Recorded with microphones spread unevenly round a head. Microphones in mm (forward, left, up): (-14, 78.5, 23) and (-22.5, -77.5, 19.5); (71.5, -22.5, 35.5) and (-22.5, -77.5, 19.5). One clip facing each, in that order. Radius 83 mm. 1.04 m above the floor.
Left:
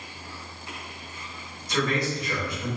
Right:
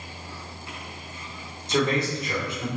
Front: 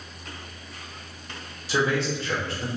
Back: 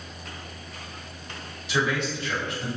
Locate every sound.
1.7 s a man speaking: 25° right, 1.8 m